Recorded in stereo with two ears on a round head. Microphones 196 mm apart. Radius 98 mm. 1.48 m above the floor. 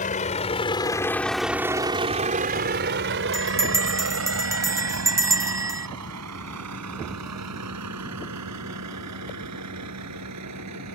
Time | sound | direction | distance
0.0 | a vehicle | 35° left (ahead or behind) | ?
3.3 | a bell | 15° right (ahead or behind) | ?